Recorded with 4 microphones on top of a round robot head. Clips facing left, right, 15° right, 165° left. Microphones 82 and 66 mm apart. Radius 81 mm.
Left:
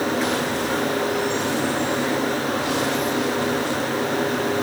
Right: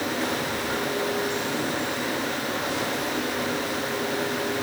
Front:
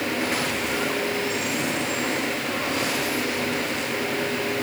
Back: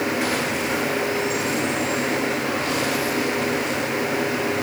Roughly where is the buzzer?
I don't hear a buzzer.